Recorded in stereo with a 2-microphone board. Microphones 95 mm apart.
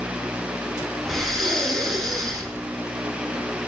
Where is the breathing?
Centre (ahead or behind), 8.5 m.